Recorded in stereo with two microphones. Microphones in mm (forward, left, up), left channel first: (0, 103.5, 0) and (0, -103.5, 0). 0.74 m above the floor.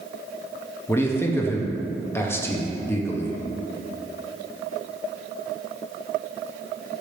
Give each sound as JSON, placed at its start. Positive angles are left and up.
{"t": 0.9, "sound": "a man speaking", "side_deg": 10, "distance_m": 0.6}